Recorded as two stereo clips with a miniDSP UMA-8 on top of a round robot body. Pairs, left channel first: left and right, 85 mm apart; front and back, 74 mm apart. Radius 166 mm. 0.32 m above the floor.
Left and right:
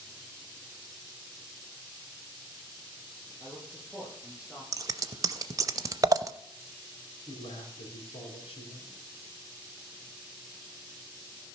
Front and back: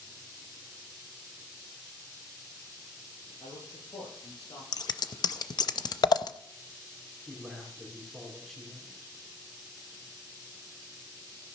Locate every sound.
3.4 s a man speaking: 10° right, 8 m
4.7 s scissors: 35° right, 0.6 m
7.3 s a man speaking: 85° left, 4 m